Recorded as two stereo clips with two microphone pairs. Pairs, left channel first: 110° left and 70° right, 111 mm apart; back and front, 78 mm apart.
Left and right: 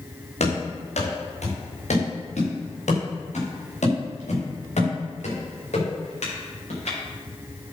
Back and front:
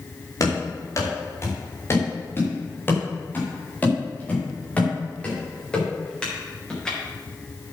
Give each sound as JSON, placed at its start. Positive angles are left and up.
{"t": 0.4, "sound": "running footsteps", "azimuth_deg": 130, "distance_m": 5.0}